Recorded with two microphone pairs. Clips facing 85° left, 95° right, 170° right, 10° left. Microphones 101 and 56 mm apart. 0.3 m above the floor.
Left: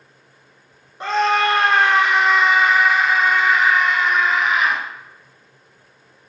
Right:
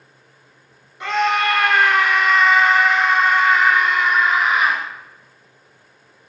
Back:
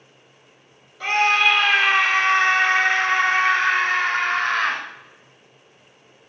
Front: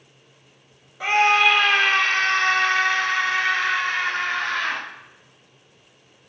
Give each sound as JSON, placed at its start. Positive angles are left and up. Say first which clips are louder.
{"t": 1.0, "sound": "a scream", "louder": "left 1 dB, front 1 dB", "azimuth_deg": 75, "distance_m": 1.3}